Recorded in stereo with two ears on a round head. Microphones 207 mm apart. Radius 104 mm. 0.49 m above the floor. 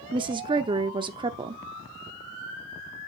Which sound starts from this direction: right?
A woman speaking, at 0.1 s.